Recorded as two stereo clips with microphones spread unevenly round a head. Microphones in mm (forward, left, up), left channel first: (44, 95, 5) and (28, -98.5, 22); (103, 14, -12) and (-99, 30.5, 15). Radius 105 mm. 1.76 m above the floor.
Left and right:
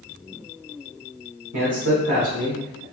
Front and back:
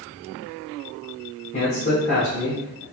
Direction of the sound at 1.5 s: 65° right.